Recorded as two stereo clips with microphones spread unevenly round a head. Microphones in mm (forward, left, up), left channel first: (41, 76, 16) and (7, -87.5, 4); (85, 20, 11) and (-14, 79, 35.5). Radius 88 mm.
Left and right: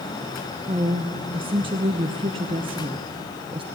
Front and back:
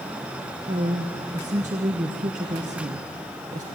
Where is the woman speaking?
165° right, 0.8 m.